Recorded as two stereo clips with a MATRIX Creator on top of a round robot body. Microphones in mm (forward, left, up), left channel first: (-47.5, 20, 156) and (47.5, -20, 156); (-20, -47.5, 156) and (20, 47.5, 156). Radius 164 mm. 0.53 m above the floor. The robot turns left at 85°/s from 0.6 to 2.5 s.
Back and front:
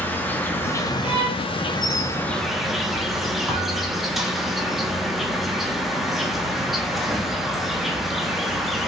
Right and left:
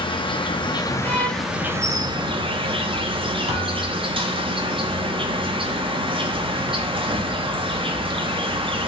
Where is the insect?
135° right, 0.9 m; by 8.9 s 65° left, 0.9 m.